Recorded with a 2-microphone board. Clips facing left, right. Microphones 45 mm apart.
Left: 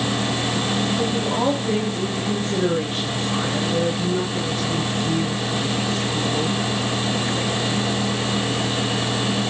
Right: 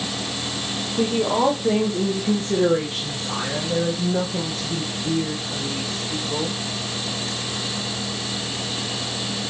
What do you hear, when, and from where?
0.9 s a woman speaking: 70° right (ahead or behind), 5.5 m